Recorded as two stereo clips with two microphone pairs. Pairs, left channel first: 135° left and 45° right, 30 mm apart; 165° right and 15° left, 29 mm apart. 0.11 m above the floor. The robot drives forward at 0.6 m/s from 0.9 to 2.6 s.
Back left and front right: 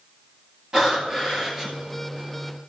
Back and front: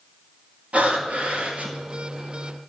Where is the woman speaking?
I don't hear a woman speaking.